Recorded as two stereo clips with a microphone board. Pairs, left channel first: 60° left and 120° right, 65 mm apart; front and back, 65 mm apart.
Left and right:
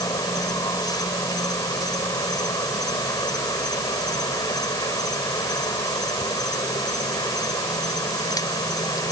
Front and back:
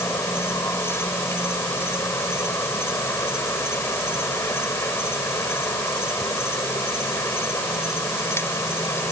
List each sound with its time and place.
0.0 s an insect: 50° left